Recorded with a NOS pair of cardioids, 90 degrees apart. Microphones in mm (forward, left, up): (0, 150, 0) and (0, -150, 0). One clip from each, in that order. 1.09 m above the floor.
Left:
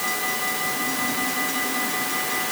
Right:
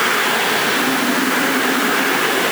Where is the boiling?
I don't hear boiling.